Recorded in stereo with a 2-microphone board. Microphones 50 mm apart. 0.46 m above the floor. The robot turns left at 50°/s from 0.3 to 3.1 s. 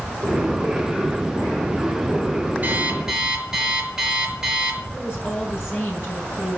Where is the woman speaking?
55° left (ahead or behind), 5.5 m.